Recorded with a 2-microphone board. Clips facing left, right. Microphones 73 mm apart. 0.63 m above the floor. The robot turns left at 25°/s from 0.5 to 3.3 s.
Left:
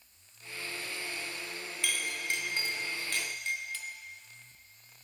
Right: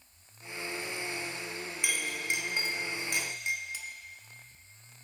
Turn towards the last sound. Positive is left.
turn(degrees=-15)  # may be behind; listen again after turning